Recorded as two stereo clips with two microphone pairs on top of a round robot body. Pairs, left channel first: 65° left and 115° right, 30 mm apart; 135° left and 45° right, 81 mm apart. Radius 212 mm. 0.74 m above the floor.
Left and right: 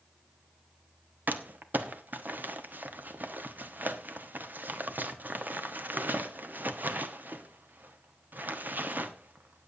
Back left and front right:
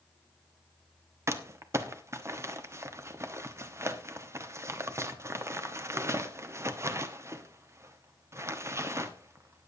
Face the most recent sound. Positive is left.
turn(degrees=-100)